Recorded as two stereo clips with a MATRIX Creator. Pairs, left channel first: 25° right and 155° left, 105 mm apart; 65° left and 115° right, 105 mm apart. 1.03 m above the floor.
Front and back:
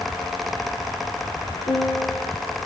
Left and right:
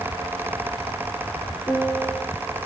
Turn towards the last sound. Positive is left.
turn(degrees=-35)